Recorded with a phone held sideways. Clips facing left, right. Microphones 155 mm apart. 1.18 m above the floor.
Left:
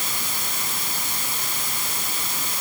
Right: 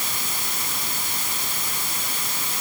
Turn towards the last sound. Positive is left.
No sound to turn to.